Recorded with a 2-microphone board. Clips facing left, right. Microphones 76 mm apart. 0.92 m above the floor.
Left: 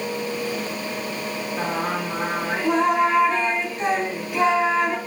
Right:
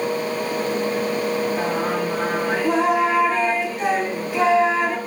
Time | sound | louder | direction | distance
1.6 | singing | right 3 dB | 5° right (ahead or behind) | 1.3 m